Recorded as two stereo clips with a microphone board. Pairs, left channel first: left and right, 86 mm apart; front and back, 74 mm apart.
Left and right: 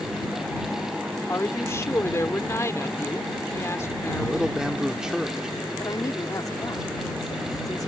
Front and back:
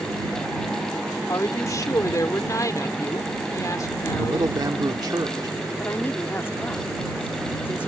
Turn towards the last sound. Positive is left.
turn(degrees=55)